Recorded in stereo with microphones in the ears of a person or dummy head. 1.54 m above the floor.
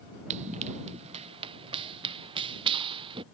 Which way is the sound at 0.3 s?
30° right (ahead or behind).